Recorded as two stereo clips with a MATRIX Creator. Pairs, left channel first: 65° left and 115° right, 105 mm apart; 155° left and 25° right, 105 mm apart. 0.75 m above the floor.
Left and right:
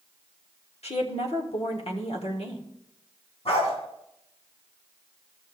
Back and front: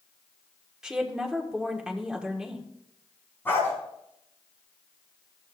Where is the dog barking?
85° left, 3 m.